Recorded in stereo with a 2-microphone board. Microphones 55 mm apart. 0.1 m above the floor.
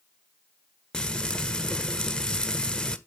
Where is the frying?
10° left (ahead or behind), 1.0 m.